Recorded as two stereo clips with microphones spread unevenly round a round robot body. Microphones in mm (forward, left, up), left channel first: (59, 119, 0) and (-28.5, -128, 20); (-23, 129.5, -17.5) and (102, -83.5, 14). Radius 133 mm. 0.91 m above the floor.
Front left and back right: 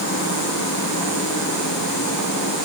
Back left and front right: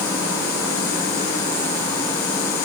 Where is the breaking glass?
No breaking glass in this recording.